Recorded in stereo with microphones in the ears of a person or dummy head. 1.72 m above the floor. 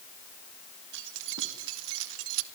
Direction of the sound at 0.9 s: 60° right (ahead or behind).